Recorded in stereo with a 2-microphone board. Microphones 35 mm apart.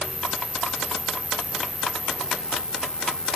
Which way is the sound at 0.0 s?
30° left (ahead or behind).